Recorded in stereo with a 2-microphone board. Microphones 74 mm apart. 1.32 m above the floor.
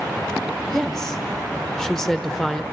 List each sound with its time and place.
0.7 s a woman speaking: 5° left (ahead or behind), 1.1 m